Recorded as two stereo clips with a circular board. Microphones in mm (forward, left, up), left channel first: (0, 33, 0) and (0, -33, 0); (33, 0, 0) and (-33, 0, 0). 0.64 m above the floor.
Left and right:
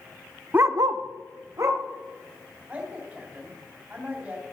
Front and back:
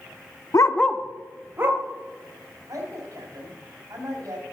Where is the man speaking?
155° right, 3 m.